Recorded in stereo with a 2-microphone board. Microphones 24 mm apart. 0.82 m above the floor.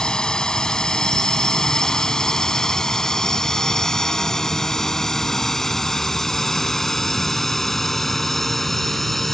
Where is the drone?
30° left (ahead or behind); by 9.3 s 10° left (ahead or behind).